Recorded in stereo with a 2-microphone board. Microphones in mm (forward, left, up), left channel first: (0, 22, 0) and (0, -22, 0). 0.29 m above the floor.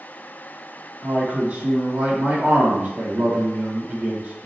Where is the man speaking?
30° right (ahead or behind), 1.6 m.